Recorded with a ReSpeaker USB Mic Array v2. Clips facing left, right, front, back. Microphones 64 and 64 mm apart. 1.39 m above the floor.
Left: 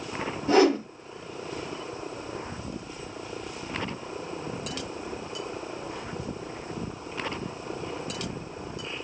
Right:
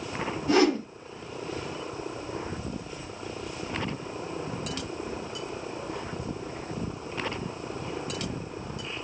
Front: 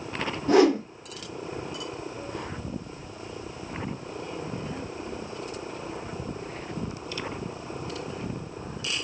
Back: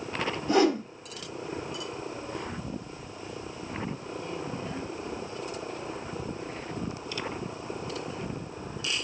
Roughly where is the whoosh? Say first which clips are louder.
Left 2 dB, front 4 dB; ahead left.